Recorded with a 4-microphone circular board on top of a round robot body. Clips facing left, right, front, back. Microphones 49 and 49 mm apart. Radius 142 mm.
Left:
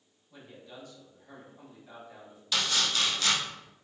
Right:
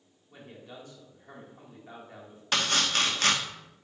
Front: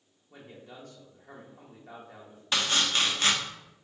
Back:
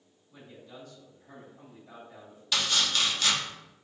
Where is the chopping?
55° right, 1.3 m.